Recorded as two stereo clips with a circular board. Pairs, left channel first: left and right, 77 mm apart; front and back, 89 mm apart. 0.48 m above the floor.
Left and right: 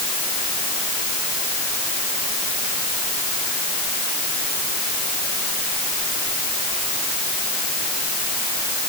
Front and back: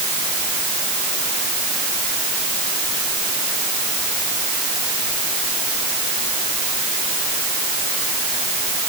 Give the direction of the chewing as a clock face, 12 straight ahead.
No chewing in this recording.